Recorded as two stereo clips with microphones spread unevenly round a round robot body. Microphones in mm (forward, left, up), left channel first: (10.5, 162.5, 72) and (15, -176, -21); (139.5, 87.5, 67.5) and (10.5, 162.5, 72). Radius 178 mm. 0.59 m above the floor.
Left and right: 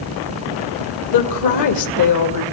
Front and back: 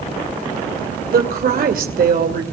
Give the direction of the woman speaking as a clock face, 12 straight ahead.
8 o'clock.